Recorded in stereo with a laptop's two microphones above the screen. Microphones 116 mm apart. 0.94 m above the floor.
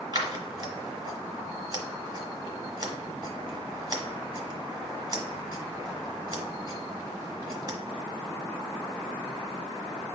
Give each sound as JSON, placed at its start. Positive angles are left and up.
{"t": 0.1, "sound": "scissors", "side_deg": -35, "distance_m": 1.2}